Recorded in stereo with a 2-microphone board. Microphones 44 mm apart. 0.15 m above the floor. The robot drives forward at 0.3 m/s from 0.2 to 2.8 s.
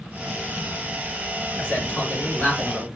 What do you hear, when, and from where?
1.6 s a man speaking: 40° left (ahead or behind), 1.8 m